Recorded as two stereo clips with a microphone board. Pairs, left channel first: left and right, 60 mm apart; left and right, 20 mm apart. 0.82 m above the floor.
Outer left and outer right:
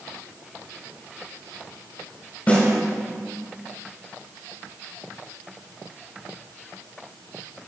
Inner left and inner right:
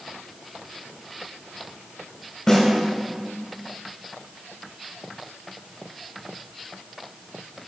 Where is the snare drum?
30° left (ahead or behind), 2 m.